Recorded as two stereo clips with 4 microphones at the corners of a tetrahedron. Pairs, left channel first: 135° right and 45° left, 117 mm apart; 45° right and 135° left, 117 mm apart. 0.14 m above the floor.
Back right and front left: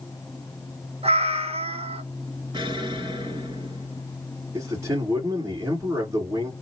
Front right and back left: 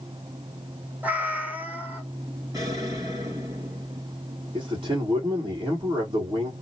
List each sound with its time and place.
1.0 s a cat meowing: 60° left, 0.9 m
2.5 s an explosion: 85° left, 2.5 m
4.5 s a man speaking: 105° left, 2.5 m